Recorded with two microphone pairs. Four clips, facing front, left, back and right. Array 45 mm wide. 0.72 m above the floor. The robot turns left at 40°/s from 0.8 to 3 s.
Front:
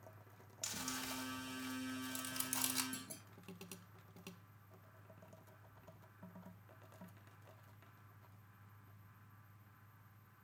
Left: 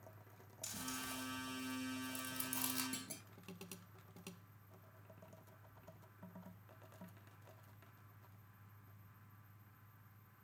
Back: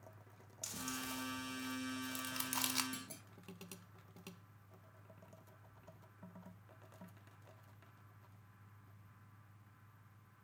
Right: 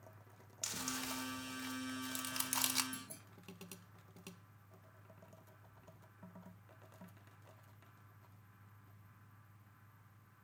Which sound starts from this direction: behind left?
A clunk, at 2.9 s.